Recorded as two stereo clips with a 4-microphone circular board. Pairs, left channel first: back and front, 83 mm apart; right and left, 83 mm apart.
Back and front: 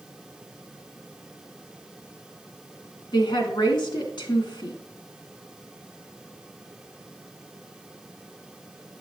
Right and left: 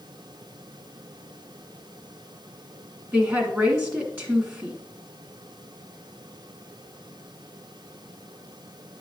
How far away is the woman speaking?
About 2 m.